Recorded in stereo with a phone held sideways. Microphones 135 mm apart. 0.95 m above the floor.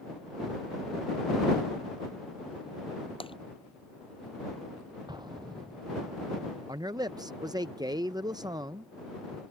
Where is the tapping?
45° left (ahead or behind).